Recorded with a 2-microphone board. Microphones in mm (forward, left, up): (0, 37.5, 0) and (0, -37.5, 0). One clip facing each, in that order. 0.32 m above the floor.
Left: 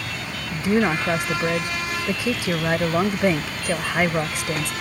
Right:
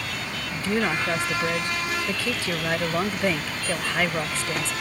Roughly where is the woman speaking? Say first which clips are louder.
Left 5 dB; centre.